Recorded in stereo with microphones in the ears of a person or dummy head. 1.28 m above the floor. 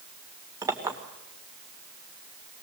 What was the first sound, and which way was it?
A clink, 15° right (ahead or behind).